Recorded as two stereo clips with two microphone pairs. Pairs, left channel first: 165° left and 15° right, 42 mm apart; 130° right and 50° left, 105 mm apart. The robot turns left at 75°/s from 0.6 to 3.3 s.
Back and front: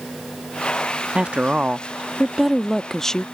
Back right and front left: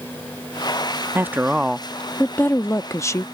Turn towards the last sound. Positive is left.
turn(degrees=-150)